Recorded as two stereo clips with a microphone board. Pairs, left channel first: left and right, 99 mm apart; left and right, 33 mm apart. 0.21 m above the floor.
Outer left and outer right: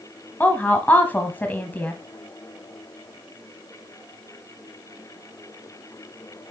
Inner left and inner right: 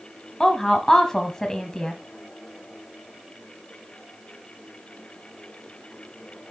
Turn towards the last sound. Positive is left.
turn(degrees=15)  # may be behind; listen again after turning